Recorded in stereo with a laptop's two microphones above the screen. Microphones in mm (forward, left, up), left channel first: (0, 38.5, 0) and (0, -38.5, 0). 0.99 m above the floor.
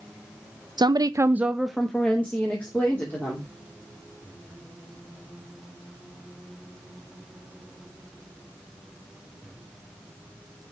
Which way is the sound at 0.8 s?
70° right (ahead or behind).